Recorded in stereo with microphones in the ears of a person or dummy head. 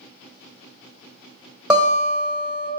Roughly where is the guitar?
Centre.